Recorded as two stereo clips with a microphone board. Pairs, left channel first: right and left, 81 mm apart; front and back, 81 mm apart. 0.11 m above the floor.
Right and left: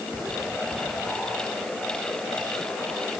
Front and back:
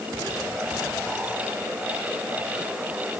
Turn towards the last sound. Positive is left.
No sound to turn to.